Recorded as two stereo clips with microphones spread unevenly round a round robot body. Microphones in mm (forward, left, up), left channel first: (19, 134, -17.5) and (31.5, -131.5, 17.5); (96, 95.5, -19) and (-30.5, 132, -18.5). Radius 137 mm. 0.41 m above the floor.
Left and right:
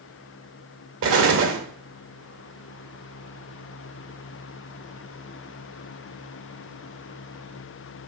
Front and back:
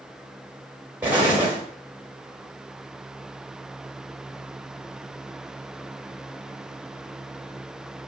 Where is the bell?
I don't hear a bell.